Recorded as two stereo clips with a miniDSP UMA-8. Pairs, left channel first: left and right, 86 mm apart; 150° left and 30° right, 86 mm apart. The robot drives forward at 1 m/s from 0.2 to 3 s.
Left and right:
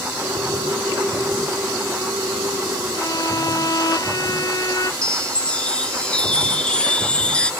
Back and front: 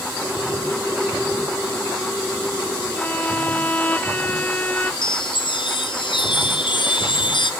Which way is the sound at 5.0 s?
170° left.